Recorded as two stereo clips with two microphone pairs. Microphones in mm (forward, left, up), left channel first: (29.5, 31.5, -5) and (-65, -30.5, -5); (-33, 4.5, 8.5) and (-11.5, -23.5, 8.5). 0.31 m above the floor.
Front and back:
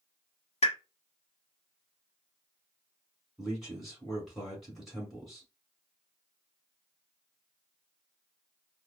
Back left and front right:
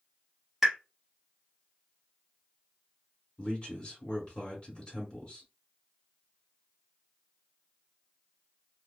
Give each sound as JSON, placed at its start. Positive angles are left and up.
{"t": 0.6, "sound": "a pop", "azimuth_deg": 30, "distance_m": 0.8}
{"t": 3.4, "sound": "a man speaking", "azimuth_deg": 125, "distance_m": 1.7}